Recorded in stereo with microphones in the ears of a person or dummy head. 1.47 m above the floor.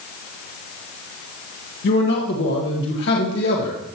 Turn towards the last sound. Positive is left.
turn(degrees=70)  # may be behind; listen again after turning